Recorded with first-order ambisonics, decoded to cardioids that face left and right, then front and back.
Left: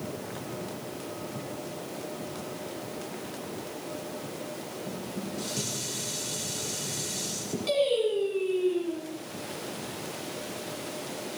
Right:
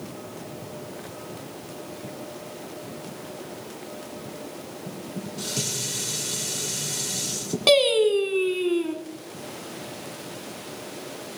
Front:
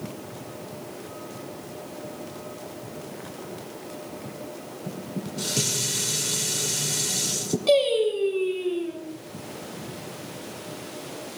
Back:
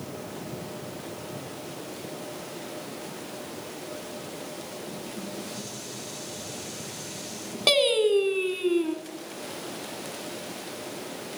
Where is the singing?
130° right, 3.5 m.